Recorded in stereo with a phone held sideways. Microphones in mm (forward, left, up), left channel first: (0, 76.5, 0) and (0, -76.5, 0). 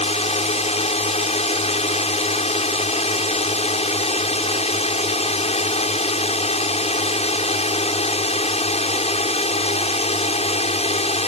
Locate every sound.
0.0 s a drone: 40° left (ahead or behind)